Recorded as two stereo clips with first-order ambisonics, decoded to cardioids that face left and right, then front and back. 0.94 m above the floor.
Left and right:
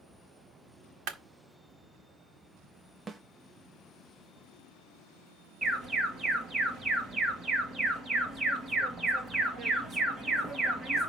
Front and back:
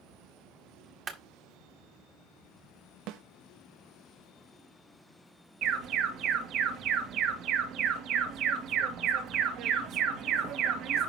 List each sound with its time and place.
1.1 s a clap: 115° right, 1.6 m
3.1 s a snare drum: 160° right, 0.8 m
5.6 s an alarm: 155° right, 2 m